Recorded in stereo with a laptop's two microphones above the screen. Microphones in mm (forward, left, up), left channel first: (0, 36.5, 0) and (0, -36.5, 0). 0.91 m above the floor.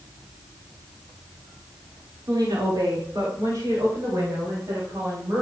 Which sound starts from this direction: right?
A woman speaking, at 2.3 s.